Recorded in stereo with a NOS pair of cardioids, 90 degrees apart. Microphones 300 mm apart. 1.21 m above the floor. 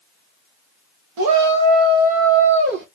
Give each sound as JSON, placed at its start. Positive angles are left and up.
{"t": 1.2, "sound": "a shout", "azimuth_deg": -70, "distance_m": 1.5}